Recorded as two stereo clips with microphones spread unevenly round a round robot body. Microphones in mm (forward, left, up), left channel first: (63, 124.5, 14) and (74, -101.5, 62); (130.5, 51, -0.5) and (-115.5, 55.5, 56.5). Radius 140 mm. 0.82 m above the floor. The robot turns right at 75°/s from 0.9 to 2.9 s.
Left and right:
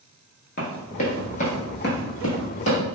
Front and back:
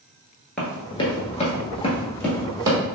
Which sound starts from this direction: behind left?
Running footsteps, at 0.6 s.